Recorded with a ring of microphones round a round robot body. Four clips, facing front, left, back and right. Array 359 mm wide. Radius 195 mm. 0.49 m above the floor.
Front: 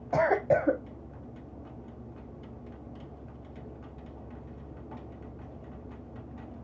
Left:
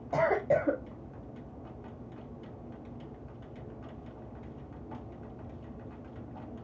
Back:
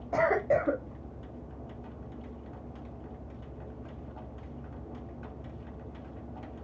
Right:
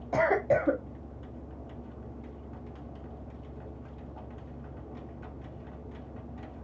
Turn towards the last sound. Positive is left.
turn(degrees=-20)